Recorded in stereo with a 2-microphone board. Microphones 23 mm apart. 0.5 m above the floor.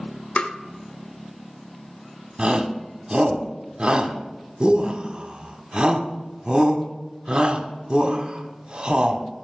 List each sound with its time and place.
0.4 s tapping: 60° left (ahead or behind), 0.6 m
2.4 s a shout: 45° right (ahead or behind), 1.0 m